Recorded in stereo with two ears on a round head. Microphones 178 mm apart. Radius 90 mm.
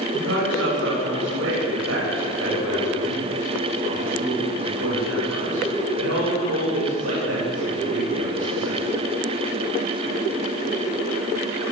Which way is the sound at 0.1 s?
65° right (ahead or behind).